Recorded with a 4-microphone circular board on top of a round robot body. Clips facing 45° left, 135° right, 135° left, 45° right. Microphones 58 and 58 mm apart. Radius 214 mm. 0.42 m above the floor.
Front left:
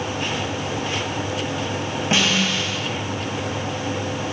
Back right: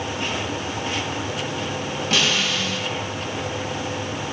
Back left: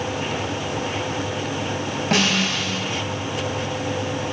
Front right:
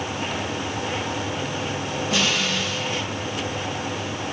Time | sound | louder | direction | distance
2.1 | a snare drum | front left 2 dB, back left 3 dB | 105° left | 4 m